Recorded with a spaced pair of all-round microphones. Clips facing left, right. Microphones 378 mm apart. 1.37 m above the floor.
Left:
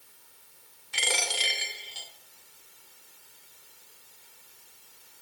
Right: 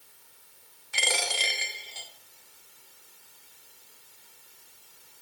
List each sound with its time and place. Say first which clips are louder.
0.9 s a dropped coin: right 1 dB; 45° left (ahead or behind), 1.6 m